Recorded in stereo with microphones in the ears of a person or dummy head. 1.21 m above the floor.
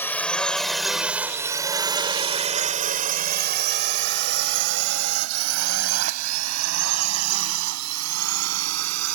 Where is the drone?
15° left (ahead or behind); by 9.1 s 80° right.